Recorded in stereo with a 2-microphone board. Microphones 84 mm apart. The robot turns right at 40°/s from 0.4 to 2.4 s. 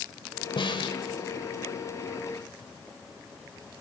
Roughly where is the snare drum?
Left.